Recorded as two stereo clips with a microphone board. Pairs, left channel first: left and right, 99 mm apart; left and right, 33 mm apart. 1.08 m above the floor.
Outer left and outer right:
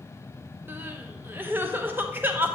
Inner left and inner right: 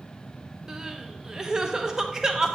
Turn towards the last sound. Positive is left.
turn(degrees=-20)  # may be behind; listen again after turning